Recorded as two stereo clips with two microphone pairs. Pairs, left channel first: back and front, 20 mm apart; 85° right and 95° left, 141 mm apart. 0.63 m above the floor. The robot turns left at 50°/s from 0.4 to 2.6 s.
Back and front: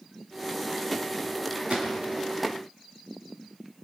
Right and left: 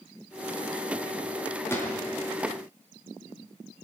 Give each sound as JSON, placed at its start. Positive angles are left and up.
{"t": 1.7, "sound": "a gunshot", "azimuth_deg": -10, "distance_m": 4.5}